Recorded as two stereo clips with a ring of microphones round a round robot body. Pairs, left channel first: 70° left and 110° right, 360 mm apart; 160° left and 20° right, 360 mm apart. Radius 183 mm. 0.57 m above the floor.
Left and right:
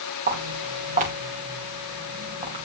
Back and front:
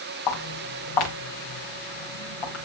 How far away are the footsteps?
About 6.5 m.